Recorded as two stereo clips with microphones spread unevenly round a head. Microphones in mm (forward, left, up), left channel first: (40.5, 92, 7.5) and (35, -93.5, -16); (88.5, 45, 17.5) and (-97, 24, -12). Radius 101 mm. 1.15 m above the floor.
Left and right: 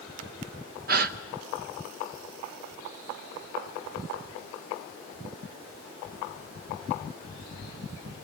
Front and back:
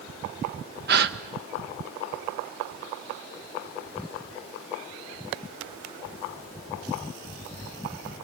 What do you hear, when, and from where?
0.9 s a gasp: 135° right, 0.6 m